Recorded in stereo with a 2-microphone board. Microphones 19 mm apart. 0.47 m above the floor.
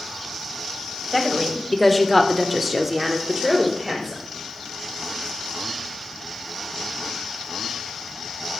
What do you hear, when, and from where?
1.1 s a woman speaking: 15° left (ahead or behind), 2.5 m; by 4.2 s 25° right (ahead or behind), 2.5 m